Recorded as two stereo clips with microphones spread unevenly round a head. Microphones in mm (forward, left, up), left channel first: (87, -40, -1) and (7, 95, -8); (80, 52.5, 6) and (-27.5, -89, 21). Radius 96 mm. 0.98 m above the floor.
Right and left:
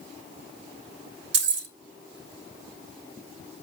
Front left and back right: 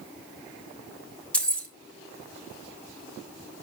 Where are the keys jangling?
135° left, 1.2 m.